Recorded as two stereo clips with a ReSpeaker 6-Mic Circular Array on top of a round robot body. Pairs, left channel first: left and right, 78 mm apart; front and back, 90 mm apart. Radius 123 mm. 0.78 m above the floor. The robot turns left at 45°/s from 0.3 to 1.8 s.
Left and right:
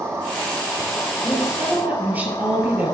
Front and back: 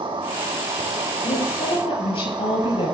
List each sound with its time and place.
0.0 s an insect: 150° right, 2.5 m; by 2.9 s 145° left, 2.5 m
1.2 s a woman speaking: straight ahead, 6 m; by 2.9 s 25° right, 6 m